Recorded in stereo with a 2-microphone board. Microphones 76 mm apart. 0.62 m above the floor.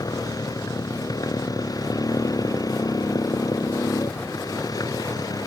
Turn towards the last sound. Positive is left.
turn(degrees=55)  # may be behind; listen again after turning